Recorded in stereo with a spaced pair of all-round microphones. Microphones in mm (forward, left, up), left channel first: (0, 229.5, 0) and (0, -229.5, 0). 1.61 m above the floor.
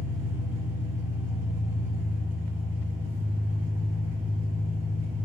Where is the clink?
No clink in this recording.